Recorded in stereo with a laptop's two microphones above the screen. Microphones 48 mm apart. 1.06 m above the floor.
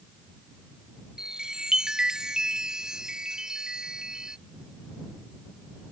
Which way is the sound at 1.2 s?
15° right (ahead or behind).